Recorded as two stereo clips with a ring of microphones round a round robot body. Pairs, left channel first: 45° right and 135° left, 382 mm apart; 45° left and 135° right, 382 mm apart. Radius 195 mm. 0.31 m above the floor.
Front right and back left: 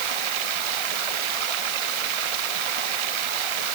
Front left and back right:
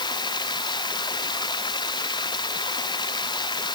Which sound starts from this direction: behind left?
Running water, at 0.0 s.